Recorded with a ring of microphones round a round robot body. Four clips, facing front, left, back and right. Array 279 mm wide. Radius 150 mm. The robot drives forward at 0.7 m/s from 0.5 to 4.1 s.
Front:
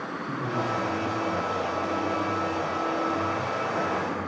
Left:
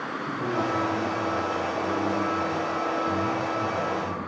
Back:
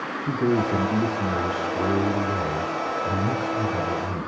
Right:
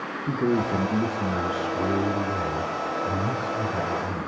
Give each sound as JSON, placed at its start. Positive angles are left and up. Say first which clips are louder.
{"t": 0.3, "sound": "a man speaking", "louder": "right 4 dB, back 8 dB", "azimuth_deg": -140, "distance_m": 1.7}